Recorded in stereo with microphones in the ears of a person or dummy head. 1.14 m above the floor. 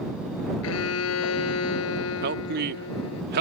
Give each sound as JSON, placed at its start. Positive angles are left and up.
{"t": 0.6, "sound": "a violin", "side_deg": 80}
{"t": 2.2, "sound": "a man speaking", "side_deg": -60}